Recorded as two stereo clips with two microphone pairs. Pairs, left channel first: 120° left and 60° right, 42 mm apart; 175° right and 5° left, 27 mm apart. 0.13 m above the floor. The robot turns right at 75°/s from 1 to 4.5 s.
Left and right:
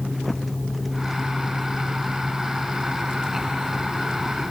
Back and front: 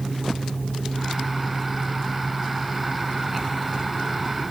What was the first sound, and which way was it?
Only background noise.